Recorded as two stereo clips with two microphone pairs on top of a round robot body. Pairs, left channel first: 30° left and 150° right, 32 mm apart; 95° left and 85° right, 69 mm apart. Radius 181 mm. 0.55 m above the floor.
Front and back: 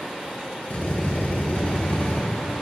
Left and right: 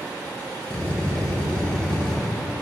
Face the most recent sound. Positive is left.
turn(degrees=20)